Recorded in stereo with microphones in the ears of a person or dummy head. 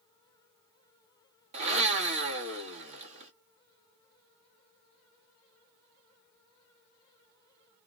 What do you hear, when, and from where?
1.5 s a blender: 45° right (ahead or behind), 1.4 m